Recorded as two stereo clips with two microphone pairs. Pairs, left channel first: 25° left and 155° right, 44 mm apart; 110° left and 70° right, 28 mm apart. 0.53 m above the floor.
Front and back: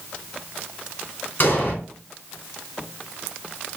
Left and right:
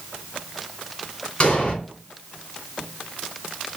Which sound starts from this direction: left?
An explosion, at 1.4 s.